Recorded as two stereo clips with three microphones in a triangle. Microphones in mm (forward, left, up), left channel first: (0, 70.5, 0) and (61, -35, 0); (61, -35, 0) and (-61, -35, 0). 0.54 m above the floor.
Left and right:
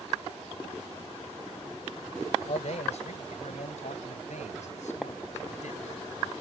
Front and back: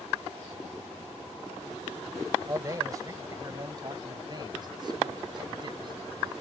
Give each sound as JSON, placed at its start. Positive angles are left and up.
{"t": 2.5, "sound": "a man speaking", "azimuth_deg": 120}